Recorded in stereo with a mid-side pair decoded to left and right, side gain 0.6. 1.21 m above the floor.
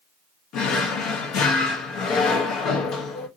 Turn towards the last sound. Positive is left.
turn(degrees=65)